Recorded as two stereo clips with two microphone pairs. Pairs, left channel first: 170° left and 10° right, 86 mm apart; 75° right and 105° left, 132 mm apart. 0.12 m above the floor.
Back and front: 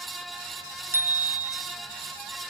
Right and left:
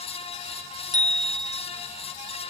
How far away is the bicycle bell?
About 3 m.